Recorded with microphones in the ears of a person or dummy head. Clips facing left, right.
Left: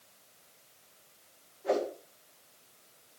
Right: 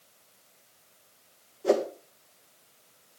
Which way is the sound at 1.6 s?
50° right (ahead or behind).